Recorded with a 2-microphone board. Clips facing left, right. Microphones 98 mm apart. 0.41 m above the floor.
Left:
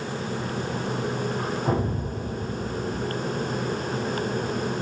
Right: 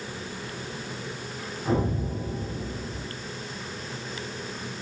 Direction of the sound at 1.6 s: 55° left (ahead or behind).